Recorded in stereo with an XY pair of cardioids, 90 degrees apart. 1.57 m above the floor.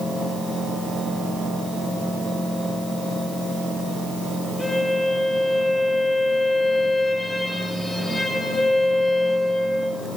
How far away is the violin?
About 9 m.